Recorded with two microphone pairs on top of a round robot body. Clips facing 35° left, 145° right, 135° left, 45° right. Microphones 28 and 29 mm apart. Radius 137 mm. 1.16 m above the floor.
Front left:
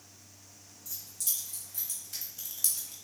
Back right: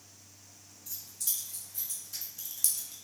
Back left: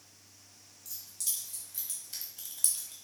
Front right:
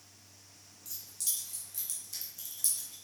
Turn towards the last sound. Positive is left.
turn(degrees=120)